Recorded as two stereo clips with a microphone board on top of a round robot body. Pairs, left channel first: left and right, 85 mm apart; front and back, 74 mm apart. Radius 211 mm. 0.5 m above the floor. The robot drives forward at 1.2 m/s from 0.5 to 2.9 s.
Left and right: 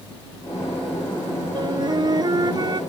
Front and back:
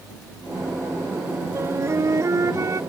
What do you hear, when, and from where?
1.6 s a flute: 125° right; by 2.8 s 135° right